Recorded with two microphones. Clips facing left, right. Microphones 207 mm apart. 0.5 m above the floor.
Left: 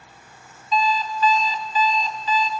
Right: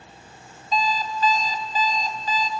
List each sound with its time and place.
0.7 s an alarm clock: 45° right (ahead or behind), 1.8 m